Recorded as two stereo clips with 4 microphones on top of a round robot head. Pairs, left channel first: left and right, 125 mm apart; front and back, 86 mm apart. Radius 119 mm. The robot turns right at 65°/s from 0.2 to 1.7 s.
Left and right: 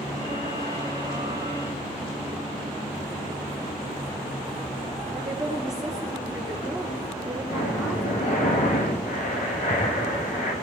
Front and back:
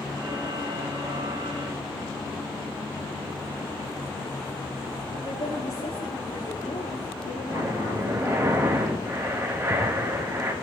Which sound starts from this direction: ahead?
A woman speaking, at 5.1 s.